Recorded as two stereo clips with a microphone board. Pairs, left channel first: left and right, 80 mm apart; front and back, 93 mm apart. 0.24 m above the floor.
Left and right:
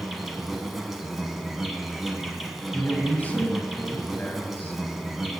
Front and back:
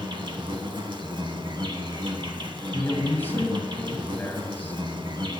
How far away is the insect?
About 0.9 m.